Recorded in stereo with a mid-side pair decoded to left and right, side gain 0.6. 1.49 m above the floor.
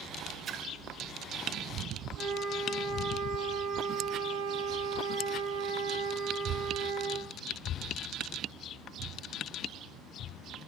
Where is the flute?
60° right, 3.5 m.